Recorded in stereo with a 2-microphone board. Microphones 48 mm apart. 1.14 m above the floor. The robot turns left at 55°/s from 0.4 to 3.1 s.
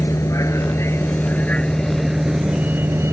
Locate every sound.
0.0 s a vehicle: 90° left; by 3.1 s 60° right